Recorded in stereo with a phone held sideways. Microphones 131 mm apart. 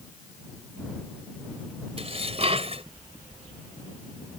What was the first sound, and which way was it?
Dishes clattering, 50° right (ahead or behind).